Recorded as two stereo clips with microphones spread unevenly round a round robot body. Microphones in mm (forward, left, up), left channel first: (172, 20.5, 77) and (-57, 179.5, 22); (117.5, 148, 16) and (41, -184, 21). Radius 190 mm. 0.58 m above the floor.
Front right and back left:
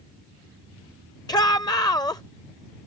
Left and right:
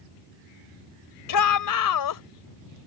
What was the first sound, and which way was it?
A shout, 45° left.